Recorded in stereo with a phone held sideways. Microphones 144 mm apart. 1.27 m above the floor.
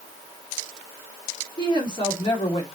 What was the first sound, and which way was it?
A woman speaking, 30° left (ahead or behind).